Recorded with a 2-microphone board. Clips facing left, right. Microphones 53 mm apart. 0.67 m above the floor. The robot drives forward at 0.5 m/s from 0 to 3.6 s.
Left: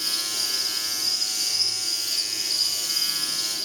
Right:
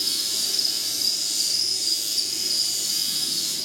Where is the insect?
55° right (ahead or behind), 7.5 m; by 3.7 s 45° right (ahead or behind), 8.5 m.